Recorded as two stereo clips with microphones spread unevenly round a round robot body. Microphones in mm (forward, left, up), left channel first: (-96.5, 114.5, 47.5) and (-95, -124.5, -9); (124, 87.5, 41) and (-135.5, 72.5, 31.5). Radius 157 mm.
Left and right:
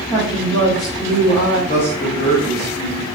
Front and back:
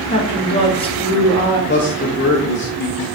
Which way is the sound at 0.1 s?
Straight ahead.